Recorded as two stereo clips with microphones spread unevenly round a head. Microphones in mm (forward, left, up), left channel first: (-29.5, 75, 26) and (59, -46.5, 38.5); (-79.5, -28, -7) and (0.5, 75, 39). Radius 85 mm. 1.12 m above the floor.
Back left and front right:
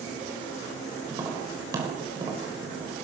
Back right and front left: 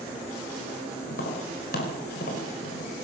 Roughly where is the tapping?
Behind right.